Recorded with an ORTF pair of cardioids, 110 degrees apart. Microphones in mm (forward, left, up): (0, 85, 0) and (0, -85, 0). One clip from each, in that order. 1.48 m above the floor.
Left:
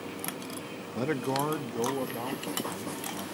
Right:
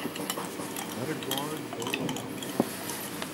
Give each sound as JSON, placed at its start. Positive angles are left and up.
{"t": 0.9, "sound": "a man speaking", "azimuth_deg": 15, "distance_m": 0.6}